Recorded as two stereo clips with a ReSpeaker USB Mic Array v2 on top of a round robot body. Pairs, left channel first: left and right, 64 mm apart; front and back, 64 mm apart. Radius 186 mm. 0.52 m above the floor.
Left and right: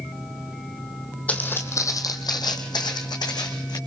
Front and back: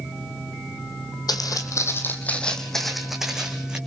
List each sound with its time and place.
1.3 s footsteps: 20° left, 1.8 m; by 3.8 s 105° left, 3.5 m